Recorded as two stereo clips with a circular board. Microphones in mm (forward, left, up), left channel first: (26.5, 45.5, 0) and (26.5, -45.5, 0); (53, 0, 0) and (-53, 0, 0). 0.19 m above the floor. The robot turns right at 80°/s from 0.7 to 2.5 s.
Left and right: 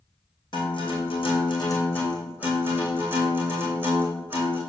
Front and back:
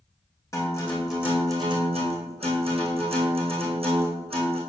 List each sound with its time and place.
0.5 s a guitar: 60° left, 2.5 m; by 4.6 s 155° right, 2.5 m